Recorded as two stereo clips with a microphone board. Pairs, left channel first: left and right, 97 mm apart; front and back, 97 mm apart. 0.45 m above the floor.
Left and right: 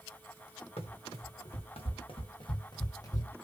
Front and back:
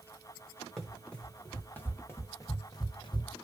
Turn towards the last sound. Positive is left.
turn(degrees=30)